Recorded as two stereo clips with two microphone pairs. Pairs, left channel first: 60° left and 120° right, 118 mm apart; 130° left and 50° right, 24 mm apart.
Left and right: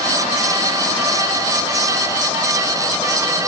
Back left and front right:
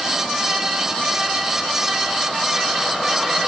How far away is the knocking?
No knocking in this recording.